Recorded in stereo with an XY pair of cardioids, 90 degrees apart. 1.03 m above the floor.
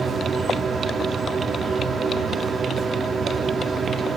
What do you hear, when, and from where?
0.0 s a machine running: 55° right, 1.2 m